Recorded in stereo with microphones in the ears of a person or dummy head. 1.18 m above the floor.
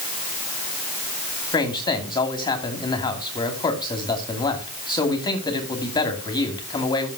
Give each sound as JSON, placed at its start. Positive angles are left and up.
{"t": 1.5, "sound": "a man speaking", "side_deg": 25, "distance_m": 2.5}